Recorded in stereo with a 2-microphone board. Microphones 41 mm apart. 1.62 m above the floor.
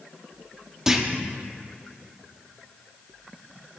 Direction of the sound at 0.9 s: 10° right (ahead or behind).